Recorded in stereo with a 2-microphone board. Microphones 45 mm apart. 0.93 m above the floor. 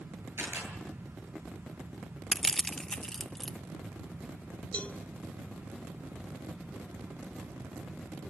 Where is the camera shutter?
85° right, 10 m.